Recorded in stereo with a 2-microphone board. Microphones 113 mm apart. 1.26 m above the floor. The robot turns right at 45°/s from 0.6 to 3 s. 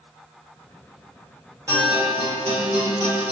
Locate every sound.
1.7 s a guitar: 150° right, 1.4 m; by 3.3 s 90° right, 1.4 m